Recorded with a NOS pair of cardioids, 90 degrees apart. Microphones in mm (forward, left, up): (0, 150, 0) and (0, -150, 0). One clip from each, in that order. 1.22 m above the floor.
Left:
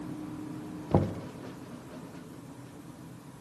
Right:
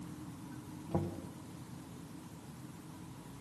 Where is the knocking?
55° left, 0.6 m.